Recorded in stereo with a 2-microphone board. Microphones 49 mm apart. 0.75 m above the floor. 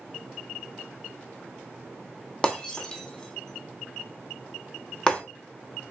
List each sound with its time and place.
2.4 s breaking glass: 15° left (ahead or behind), 1.0 m